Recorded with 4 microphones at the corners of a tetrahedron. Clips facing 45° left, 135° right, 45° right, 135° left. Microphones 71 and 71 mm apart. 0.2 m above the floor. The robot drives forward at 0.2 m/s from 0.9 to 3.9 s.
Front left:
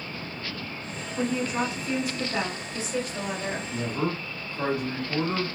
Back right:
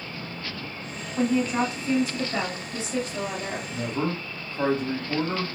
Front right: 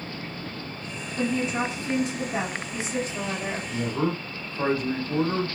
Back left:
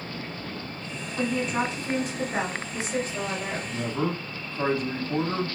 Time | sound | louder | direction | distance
1.2 | a woman speaking | back right 4 dB, even | 155° left | 1.2 m
3.7 | a man speaking | back right 2 dB, front right 2 dB | 130° right | 1.1 m